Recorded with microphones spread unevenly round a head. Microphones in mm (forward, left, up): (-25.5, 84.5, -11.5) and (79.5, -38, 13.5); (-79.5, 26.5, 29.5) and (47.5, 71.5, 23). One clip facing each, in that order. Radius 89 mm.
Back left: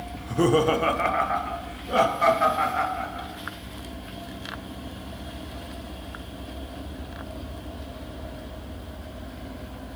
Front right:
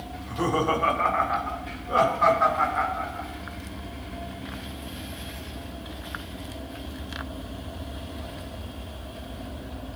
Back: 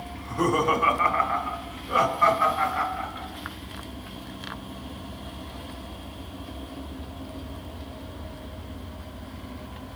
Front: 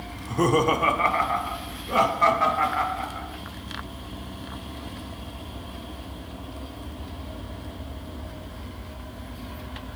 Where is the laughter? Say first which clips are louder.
Back left 5 dB, front 3 dB; 85° left, 1.0 m; by 3.3 s 75° left, 5 m.